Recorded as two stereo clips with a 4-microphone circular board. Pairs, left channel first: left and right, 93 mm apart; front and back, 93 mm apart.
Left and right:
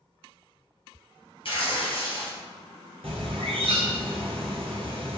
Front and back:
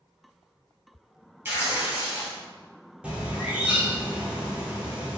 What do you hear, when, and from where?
1.4 s tearing paper: 110° left, 1.5 m
3.0 s a bird: 105° right, 0.8 m